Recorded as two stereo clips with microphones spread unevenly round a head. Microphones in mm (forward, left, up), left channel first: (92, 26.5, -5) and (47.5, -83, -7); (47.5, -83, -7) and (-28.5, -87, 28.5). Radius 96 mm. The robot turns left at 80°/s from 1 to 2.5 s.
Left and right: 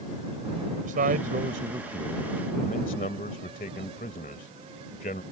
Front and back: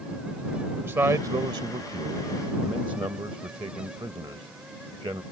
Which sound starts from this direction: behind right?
A man speaking, at 0.8 s.